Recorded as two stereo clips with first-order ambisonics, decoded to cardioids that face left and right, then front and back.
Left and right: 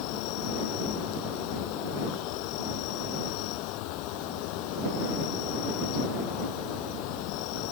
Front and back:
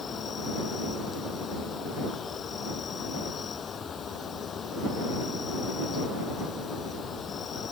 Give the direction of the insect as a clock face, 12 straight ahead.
10 o'clock.